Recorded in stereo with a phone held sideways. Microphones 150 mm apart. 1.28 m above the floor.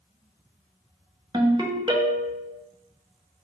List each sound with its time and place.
1.3 s a ringtone: 30° right (ahead or behind), 0.6 m